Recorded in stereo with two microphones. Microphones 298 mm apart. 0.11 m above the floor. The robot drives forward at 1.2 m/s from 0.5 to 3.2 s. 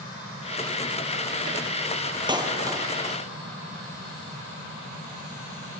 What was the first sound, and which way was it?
A clap, 15° right (ahead or behind).